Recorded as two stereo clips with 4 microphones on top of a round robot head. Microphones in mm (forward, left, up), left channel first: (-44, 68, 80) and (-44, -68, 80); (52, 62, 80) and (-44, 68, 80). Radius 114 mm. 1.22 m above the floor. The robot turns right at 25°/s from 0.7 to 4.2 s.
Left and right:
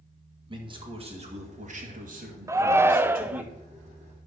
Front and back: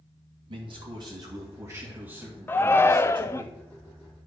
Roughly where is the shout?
Ahead right.